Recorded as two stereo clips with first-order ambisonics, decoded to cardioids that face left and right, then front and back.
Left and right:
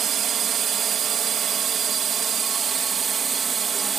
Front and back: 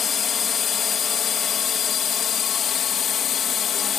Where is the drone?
50° right; by 4.0 s 35° right.